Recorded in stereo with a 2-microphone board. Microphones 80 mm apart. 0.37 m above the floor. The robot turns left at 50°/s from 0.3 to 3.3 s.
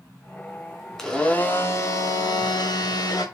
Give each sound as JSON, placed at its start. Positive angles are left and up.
{"t": 1.0, "sound": "a blender", "azimuth_deg": 175, "distance_m": 0.9}